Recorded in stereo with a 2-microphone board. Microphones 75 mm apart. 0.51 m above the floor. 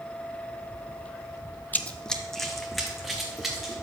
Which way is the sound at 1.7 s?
25° left (ahead or behind).